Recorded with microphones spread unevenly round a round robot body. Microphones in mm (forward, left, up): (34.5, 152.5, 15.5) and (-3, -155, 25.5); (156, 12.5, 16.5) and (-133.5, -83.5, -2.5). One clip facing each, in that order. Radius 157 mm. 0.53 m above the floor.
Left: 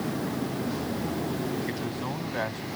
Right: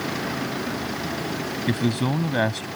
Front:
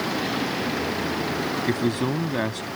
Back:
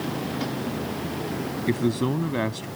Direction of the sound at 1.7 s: 70° right.